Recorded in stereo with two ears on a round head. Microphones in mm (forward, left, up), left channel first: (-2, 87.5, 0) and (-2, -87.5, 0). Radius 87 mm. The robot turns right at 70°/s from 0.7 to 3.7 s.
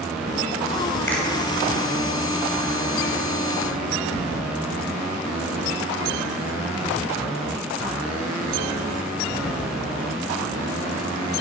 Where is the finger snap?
15° left (ahead or behind), 2.5 m; by 1.2 s 5° left (ahead or behind), 2.5 m.